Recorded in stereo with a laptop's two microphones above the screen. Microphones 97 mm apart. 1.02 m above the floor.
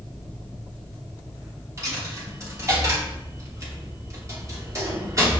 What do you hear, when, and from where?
1.8 s a dropped coin: 30° right (ahead or behind), 0.9 m